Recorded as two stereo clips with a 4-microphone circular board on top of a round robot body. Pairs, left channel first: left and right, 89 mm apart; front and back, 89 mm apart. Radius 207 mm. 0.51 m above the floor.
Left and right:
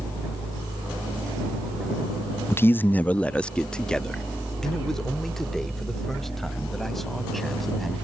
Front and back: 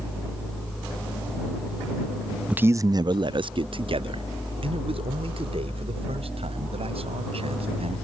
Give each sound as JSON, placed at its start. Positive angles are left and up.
{"t": 2.5, "sound": "a man speaking", "azimuth_deg": 115}